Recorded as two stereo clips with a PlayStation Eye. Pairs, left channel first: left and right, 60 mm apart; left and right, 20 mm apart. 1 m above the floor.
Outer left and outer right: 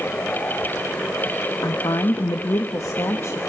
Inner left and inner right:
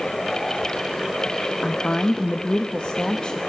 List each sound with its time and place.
1.6 s a woman speaking: 65° left (ahead or behind), 1.1 m; by 3.4 s 50° left (ahead or behind), 1.3 m